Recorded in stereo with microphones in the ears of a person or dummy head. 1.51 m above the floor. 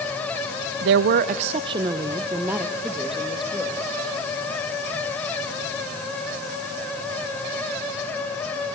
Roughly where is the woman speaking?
Right.